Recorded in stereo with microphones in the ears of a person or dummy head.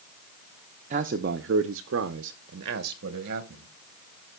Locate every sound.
0.9 s a man speaking: 40° right (ahead or behind), 0.6 m; by 3.7 s 45° right (ahead or behind), 1.4 m